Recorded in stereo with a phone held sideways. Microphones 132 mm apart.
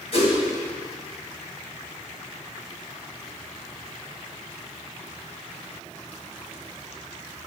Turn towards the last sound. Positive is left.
turn(degrees=50)  # may be behind; listen again after turning